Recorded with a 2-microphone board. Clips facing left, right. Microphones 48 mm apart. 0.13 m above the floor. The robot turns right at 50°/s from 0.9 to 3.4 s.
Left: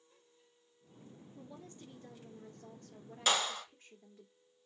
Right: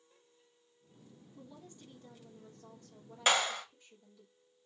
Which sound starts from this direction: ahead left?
A woman speaking, at 1.4 s.